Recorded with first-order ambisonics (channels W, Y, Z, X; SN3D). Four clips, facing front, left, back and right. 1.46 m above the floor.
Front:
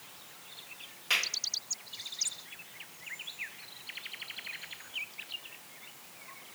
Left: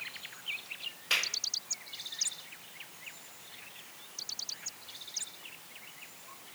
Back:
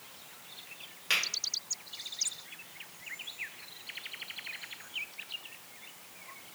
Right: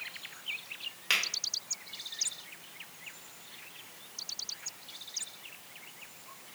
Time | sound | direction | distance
1.1 | a finger snap | 105° right | 1.4 m